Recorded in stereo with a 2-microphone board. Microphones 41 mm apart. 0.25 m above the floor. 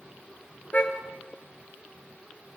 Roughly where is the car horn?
Left.